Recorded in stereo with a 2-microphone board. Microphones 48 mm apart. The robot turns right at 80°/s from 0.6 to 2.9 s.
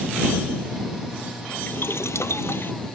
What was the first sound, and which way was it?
Boiling, 45° left.